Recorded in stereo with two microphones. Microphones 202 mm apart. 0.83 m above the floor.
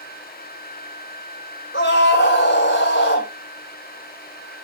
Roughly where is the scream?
Left.